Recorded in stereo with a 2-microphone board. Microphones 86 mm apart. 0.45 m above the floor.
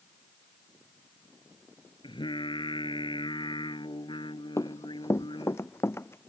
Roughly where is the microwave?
I don't hear a microwave.